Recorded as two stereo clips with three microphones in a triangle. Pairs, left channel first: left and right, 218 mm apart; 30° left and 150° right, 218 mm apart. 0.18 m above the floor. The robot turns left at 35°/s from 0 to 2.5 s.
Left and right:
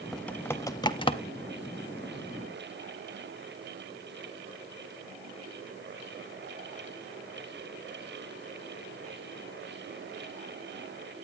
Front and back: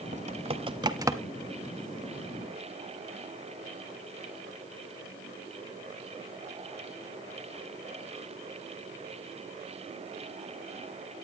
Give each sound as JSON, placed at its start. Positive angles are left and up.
{"t": 0.1, "sound": "typing on a keyboard", "azimuth_deg": 175, "distance_m": 0.7}